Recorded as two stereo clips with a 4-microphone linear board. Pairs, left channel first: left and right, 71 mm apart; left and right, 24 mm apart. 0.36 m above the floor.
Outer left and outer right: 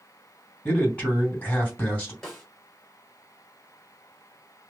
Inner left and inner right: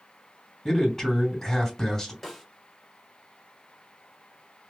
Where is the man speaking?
25° left (ahead or behind), 2 m.